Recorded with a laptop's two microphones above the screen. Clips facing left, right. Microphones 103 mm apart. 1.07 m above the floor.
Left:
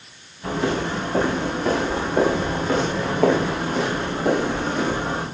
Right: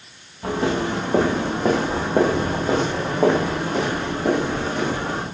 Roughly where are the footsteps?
Right.